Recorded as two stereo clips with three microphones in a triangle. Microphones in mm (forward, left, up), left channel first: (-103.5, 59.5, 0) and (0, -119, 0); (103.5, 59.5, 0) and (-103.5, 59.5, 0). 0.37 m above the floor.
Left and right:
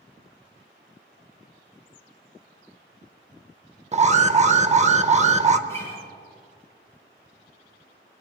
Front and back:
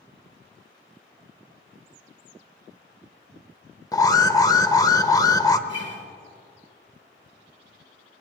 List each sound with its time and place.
3.9 s an alarm: 55° right, 0.7 m
5.7 s a guitar: 165° right, 3.5 m